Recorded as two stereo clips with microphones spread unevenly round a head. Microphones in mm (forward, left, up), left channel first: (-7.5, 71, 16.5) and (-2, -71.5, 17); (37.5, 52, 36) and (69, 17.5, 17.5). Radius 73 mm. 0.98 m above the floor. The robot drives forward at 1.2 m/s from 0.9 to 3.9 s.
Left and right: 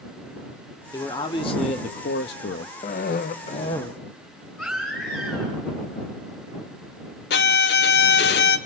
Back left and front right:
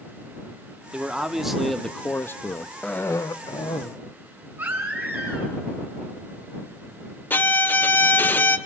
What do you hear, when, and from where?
0.9 s a man speaking: 25° left, 1.9 m; by 2.7 s 115° left, 0.9 m
2.8 s a cough: 55° left, 0.6 m; by 4.0 s 155° left, 1.1 m
4.6 s a baby crying: 5° left, 8.5 m
7.3 s a violin: 100° left, 1.0 m